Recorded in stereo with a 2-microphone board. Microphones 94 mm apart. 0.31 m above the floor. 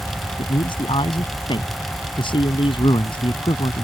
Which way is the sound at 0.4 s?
65° left (ahead or behind).